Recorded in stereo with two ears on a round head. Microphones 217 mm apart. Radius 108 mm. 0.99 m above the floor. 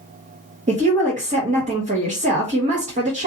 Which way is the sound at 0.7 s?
30° right (ahead or behind).